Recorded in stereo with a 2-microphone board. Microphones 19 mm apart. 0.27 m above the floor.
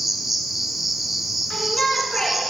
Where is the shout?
40° left (ahead or behind), 3.5 m.